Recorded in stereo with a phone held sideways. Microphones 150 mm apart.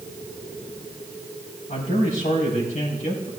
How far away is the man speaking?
About 5 m.